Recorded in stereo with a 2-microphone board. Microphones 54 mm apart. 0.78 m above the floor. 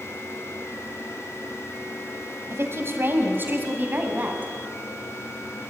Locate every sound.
2.5 s a woman speaking: 50° right (ahead or behind), 4 m; by 4.5 s 30° right (ahead or behind), 5 m